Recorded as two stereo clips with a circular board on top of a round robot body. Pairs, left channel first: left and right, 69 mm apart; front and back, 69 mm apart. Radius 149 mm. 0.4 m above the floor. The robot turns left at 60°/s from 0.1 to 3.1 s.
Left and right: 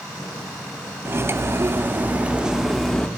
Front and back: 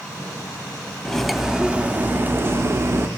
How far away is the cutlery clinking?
About 0.6 m.